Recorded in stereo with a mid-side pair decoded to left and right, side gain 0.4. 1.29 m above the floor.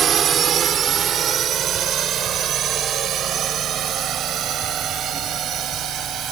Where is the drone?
60° right; by 6.3 s 70° right.